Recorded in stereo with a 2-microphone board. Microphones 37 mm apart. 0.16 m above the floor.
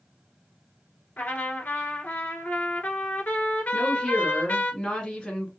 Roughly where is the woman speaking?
Left.